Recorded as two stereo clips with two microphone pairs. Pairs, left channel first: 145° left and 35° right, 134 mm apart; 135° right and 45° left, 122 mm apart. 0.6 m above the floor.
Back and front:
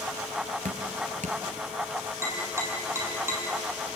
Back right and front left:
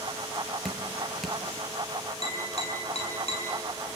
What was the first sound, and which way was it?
Dripping, 50° right.